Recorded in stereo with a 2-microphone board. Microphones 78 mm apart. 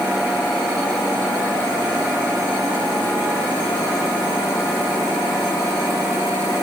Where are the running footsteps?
No running footsteps in this recording.